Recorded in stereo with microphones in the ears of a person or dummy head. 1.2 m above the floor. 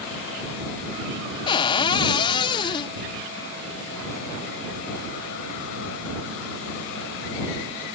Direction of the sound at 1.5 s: 25° left (ahead or behind).